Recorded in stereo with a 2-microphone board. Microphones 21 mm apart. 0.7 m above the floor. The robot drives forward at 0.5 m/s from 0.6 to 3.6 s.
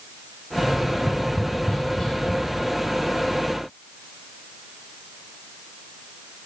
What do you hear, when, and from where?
0.6 s tapping: 30° left (ahead or behind), 4 m; by 2.4 s 35° left (ahead or behind), 3.5 m